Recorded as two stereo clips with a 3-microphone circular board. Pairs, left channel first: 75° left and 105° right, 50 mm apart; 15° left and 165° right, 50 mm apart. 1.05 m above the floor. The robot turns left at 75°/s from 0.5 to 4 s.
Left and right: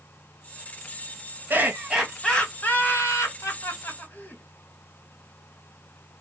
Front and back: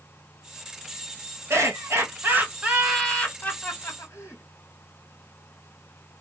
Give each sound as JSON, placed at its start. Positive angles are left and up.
{"t": 1.5, "sound": "laughter", "azimuth_deg": -145, "distance_m": 1.8}